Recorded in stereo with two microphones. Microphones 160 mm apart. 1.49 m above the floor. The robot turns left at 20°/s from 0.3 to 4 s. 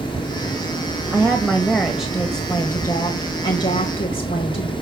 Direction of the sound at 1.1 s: Straight behind.